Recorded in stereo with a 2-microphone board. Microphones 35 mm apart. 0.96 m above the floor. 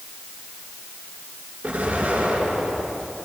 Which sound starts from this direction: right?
An explosion, at 1.6 s.